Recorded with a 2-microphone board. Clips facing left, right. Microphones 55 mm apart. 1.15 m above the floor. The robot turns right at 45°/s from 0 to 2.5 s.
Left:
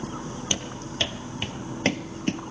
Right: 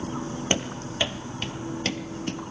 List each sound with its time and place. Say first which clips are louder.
0.5 s running footsteps: right 6 dB; 35° right (ahead or behind), 1.7 m; by 2.4 s 35° left (ahead or behind), 1.4 m